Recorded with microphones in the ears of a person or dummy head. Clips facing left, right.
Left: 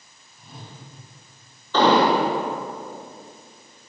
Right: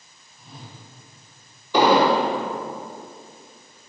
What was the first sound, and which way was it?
A whoosh, centre (ahead or behind).